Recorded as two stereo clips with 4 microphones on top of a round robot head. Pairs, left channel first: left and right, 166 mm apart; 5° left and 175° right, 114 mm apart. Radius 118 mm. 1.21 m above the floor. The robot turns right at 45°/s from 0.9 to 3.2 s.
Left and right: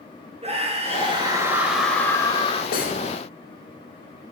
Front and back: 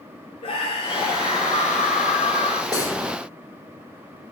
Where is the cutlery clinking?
60° left, 3 m; by 3.0 s 70° left, 3 m.